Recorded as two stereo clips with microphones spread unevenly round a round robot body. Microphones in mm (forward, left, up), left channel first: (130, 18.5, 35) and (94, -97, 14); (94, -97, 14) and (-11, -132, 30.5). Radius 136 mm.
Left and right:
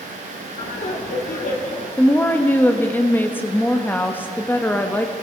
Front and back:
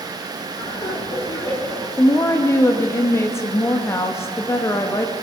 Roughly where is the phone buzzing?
No phone buzzing in this recording.